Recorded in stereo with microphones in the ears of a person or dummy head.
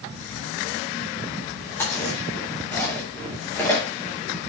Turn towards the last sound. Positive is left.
turn(degrees=20)  # may be behind; listen again after turning